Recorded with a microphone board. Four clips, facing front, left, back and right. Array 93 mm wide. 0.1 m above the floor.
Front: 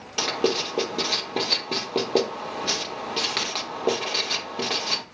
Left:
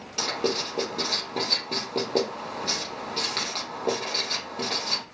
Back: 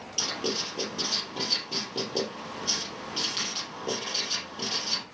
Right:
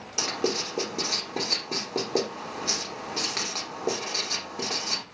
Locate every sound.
0.2 s writing: 10° right, 3 m